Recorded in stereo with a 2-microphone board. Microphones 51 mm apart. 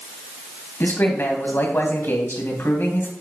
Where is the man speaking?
50° left (ahead or behind), 2.5 m.